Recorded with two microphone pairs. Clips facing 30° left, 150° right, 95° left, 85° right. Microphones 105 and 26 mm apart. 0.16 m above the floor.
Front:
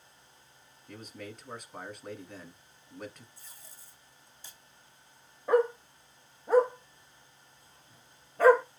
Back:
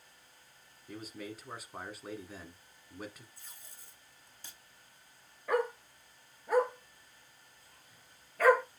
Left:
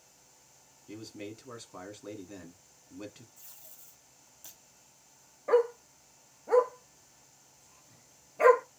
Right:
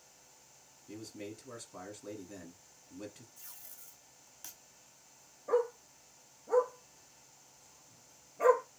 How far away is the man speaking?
About 1.2 m.